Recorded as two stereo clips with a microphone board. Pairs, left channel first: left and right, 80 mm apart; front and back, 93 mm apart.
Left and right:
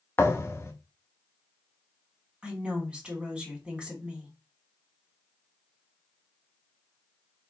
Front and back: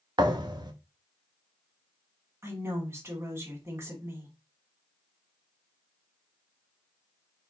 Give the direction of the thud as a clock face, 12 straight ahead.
7 o'clock.